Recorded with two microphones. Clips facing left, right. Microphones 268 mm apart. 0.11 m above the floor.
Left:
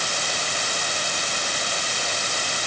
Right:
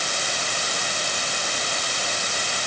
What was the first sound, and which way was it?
Only background noise.